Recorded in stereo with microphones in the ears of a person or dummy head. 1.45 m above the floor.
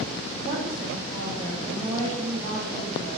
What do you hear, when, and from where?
0.4 s a woman speaking: 30° right (ahead or behind), 2.5 m